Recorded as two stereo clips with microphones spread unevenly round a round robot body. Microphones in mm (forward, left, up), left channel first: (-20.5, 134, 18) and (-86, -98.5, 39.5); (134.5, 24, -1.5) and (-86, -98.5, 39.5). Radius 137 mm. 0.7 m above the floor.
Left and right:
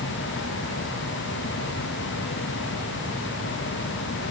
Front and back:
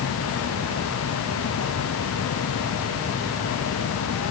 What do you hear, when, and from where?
Only background noise.